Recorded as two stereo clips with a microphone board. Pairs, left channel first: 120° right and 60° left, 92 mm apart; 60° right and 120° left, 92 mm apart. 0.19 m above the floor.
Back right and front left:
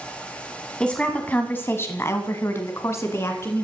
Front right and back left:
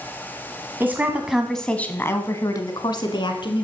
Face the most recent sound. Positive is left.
turn(degrees=-65)